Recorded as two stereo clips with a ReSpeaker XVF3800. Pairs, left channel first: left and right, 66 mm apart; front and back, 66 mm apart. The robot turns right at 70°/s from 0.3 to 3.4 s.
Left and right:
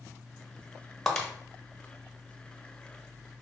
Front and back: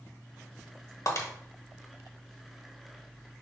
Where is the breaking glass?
5° left, 1.0 m; by 1.3 s 20° left, 1.0 m.